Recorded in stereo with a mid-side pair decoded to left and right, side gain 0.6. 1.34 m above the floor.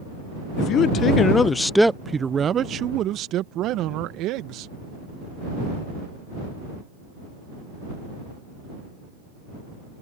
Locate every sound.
0.6 s a man speaking: 60° left; by 4.7 s 70° right